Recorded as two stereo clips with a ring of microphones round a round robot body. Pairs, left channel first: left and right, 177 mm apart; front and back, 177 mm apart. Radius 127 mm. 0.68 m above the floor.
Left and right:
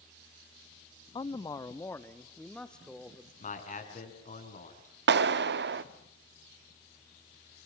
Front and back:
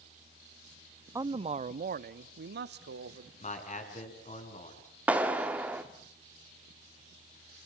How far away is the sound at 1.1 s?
About 0.6 m.